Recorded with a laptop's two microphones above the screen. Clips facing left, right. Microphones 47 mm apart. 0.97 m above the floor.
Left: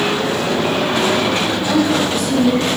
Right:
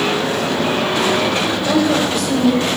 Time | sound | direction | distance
1.6 | a woman speaking | 65° right (ahead or behind) | 5.5 m